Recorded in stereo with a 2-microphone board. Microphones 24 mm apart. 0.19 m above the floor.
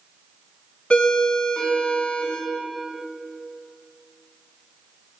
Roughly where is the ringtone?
Left.